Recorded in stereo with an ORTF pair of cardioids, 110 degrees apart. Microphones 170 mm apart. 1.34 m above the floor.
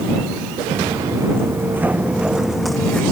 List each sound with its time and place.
0.7 s footsteps: 20° right; by 3.0 s 5° left